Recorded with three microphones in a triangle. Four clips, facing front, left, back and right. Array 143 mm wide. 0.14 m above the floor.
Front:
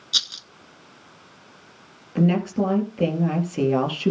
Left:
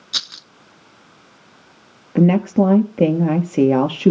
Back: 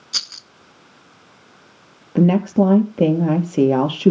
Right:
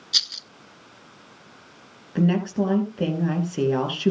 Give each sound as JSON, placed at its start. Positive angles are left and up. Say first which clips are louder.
{"t": 0.1, "sound": "a rattle", "louder": "left 5 dB, even", "azimuth_deg": 105, "distance_m": 0.7}
{"t": 2.1, "sound": "a woman speaking", "louder": "left 7 dB, back 6 dB", "azimuth_deg": 130, "distance_m": 3.0}